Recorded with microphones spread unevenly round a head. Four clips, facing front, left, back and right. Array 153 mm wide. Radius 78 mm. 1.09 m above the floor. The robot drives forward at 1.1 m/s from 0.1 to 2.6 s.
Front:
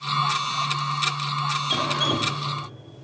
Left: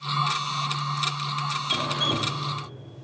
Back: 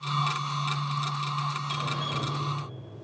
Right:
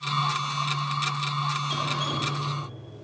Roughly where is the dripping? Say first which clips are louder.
Left 1 dB, front 7 dB; ahead.